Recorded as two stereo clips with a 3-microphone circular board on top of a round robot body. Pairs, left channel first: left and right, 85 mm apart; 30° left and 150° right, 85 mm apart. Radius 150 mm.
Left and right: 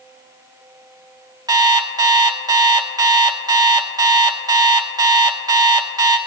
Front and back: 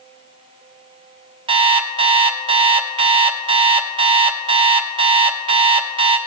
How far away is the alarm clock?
About 0.8 m.